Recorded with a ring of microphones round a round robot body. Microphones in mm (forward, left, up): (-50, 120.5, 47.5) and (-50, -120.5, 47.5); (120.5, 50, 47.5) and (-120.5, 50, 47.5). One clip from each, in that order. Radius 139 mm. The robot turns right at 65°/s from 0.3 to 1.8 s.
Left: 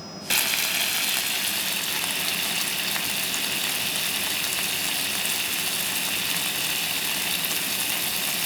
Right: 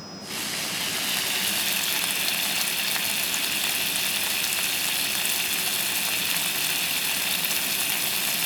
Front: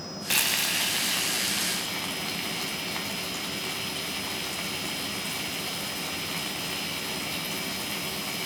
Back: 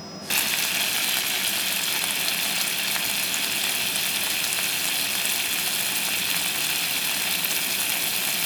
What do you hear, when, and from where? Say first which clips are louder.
0.3 s frying: left 6 dB, back 1 dB; 95° left, 0.7 m; by 8.5 s 170° right, 0.7 m